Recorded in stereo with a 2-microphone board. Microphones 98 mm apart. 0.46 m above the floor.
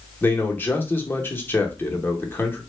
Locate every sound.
0.2 s a man speaking: 20° left (ahead or behind), 0.8 m